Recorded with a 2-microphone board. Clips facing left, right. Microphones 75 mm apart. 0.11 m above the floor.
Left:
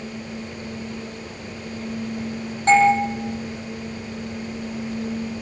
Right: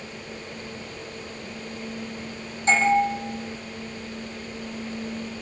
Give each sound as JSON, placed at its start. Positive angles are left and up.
{"t": 2.7, "sound": "a doorbell", "side_deg": 50, "distance_m": 7.0}